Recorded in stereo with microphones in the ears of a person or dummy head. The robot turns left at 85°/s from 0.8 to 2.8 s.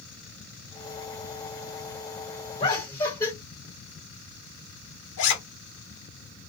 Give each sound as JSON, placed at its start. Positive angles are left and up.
{"t": 2.6, "sound": "laughter", "side_deg": 35, "distance_m": 1.3}
{"t": 5.2, "sound": "a zipper", "side_deg": 70, "distance_m": 0.8}